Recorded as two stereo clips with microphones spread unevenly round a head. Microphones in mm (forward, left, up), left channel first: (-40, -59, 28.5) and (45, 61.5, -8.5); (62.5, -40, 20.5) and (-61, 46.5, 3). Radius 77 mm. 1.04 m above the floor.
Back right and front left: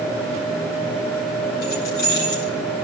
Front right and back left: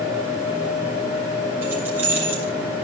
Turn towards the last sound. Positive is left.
turn(degrees=-140)